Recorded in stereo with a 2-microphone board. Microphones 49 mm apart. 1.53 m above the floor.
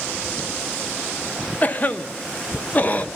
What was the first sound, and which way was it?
A cough, 35° left (ahead or behind).